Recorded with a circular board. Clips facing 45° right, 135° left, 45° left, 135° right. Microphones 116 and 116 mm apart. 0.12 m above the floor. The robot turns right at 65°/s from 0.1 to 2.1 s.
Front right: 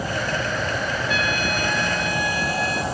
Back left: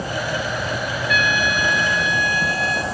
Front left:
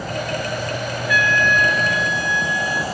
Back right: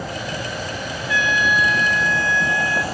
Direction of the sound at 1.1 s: 85° right.